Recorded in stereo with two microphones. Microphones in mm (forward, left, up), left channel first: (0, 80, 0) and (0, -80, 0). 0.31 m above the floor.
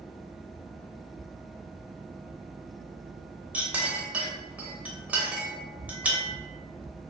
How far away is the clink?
About 0.6 m.